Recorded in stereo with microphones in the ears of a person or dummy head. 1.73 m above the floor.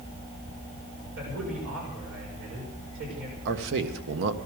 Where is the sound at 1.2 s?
90° right, 7 m.